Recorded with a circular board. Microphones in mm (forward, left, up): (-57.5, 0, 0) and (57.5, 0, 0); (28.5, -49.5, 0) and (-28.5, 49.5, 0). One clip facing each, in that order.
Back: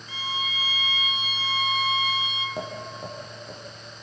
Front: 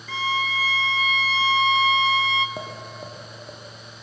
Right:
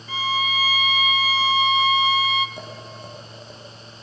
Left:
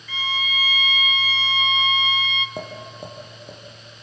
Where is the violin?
10° right, 0.8 m.